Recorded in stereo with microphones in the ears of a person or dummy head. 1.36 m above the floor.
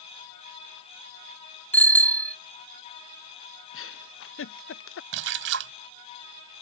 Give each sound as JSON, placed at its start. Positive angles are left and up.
{"t": 1.7, "sound": "a bicycle bell", "side_deg": 10}
{"t": 3.7, "sound": "a giggle", "side_deg": 60}
{"t": 5.1, "sound": "a splash", "side_deg": -65}